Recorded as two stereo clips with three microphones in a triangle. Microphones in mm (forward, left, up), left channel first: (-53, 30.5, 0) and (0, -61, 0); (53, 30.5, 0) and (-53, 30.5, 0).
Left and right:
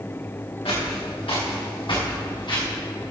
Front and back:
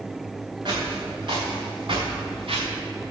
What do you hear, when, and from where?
0.7 s footsteps: 140° left, 4 m; by 2.7 s 160° left, 3 m